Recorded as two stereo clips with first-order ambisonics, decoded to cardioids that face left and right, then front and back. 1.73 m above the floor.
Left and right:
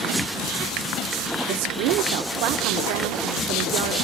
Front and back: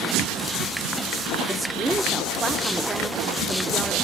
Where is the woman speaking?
100° right, 1.0 m.